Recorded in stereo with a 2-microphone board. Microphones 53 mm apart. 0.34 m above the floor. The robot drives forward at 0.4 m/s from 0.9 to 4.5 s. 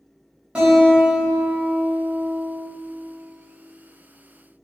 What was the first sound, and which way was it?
A guitar, 20° right (ahead or behind).